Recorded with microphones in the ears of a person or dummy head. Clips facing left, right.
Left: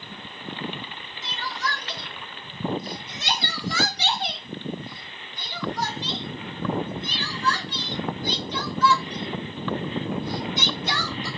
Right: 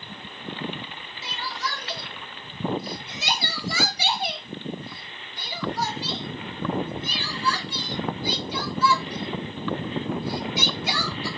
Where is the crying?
5° right (ahead or behind), 0.8 m.